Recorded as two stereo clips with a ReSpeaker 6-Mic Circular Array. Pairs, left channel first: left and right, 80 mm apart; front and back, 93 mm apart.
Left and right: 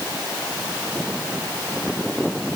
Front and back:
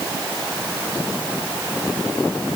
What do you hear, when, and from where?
Only background noise.